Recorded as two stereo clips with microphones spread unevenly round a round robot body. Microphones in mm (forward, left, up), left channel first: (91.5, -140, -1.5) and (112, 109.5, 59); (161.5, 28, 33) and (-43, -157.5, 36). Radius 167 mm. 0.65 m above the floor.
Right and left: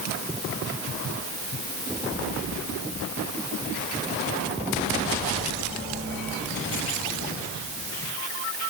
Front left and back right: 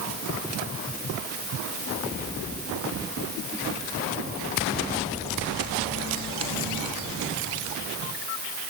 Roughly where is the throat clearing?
I don't hear throat clearing.